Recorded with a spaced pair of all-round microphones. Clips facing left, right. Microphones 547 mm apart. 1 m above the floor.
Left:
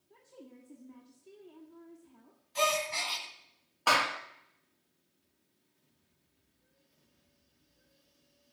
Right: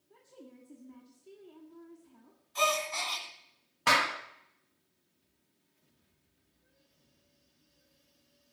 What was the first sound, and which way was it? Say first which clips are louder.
A woman speaking: even; centre (ahead or behind).